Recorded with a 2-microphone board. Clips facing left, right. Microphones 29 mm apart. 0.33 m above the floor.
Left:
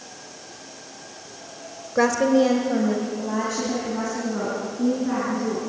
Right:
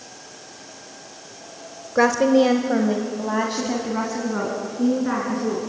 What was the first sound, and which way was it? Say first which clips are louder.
A woman speaking: right 2 dB; 10° right (ahead or behind).